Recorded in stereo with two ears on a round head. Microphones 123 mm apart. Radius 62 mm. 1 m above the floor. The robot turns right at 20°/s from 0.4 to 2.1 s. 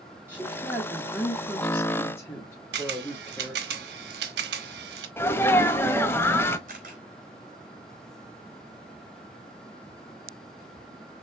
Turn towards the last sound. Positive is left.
turn(degrees=-60)  # may be behind; listen again after turning